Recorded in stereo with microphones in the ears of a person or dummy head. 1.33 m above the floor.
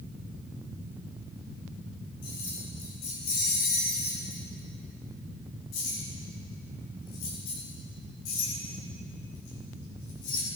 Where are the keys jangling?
65° left (ahead or behind), 7 m; by 10.4 s 70° left (ahead or behind), 10 m.